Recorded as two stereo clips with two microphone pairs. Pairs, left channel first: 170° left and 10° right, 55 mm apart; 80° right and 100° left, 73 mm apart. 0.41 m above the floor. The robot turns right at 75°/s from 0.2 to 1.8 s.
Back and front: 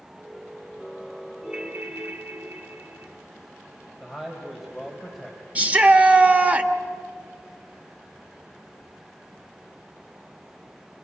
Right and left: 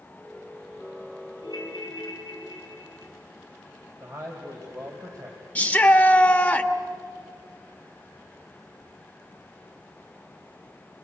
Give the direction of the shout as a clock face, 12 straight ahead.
1 o'clock.